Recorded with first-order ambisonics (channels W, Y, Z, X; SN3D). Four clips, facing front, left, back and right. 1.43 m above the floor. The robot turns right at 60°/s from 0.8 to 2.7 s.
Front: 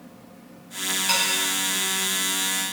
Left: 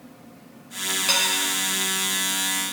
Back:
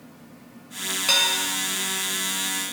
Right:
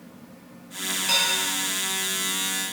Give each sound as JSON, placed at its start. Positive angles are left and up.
{"t": 1.1, "sound": "dishes clattering", "azimuth_deg": 150, "distance_m": 5.5}